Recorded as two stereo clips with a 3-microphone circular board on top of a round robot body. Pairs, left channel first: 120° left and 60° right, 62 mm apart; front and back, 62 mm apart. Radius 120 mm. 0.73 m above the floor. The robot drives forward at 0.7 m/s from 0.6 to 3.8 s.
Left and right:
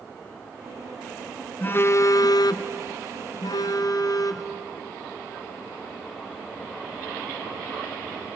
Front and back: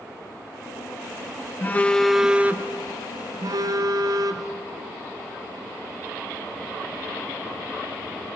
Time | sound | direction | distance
1.6 | a phone buzzing | 60° left | 0.8 m